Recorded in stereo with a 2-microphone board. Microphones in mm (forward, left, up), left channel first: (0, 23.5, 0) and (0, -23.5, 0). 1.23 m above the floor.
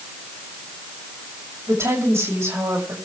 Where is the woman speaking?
80° right, 7 m.